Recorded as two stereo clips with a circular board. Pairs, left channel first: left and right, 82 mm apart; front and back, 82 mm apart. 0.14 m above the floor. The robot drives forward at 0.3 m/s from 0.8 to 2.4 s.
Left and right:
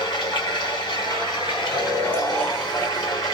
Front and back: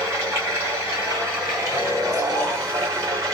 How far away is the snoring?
About 1.4 m.